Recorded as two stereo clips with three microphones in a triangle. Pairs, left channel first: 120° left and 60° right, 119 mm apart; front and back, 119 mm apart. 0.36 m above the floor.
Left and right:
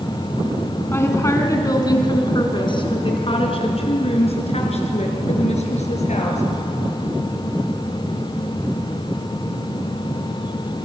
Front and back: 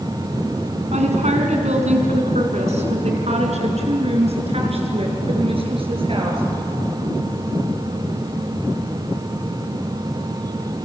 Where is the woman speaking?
170° right, 3.5 m; by 6.4 s 140° left, 6.5 m.